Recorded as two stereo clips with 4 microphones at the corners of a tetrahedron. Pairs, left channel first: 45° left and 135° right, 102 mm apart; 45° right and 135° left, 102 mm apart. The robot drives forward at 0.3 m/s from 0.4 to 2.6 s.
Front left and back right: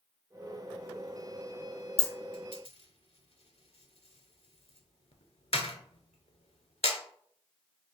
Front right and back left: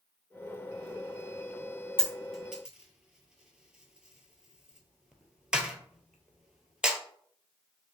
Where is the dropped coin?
40° left, 0.6 m; by 7.0 s 50° left, 0.5 m.